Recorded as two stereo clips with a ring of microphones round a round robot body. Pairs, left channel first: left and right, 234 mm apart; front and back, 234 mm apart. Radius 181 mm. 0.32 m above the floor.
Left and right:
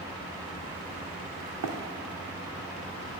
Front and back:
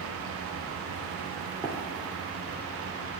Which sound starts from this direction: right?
Running footsteps, at 1.6 s.